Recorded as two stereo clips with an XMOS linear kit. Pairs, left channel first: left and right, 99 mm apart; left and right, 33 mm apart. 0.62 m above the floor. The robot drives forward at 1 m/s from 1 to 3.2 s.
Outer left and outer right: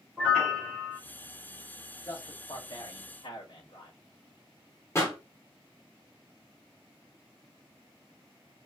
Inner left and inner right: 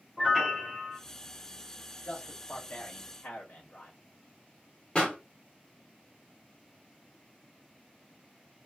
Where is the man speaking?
35° left (ahead or behind), 3 m; by 4.0 s 55° left (ahead or behind), 2 m.